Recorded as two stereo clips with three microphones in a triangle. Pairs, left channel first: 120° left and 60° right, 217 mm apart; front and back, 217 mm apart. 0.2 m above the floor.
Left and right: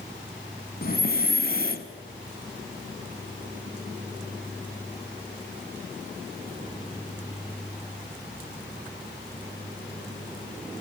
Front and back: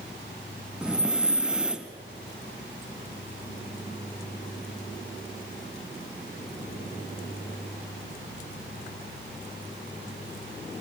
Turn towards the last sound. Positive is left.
turn(degrees=95)